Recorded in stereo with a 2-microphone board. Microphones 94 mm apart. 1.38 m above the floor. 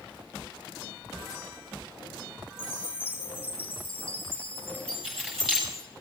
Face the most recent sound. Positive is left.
turn(degrees=5)  # may be behind; listen again after turning